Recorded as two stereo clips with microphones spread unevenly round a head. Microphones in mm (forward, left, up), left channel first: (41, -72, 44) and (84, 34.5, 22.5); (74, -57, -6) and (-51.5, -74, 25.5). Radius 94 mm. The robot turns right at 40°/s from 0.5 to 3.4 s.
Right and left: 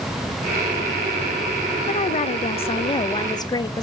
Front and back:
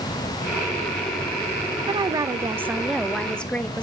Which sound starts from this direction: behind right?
A woman speaking, at 1.9 s.